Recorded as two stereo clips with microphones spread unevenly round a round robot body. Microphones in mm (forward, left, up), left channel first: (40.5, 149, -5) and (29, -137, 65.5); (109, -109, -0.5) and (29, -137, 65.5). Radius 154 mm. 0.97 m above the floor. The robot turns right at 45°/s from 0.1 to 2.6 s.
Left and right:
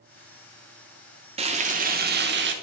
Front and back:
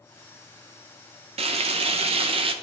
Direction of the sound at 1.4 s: 170° right.